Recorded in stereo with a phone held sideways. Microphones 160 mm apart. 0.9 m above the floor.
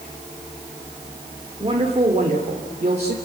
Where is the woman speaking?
35° right (ahead or behind), 3 m; by 3.1 s 50° right (ahead or behind), 3.5 m.